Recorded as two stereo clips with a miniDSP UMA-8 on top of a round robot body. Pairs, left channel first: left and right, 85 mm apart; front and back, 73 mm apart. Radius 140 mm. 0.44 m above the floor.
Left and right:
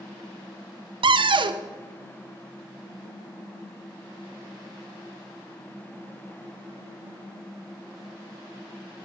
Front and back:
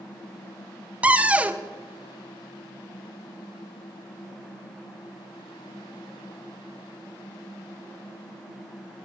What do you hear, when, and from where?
1.0 s a cupboard door: 110° right, 0.5 m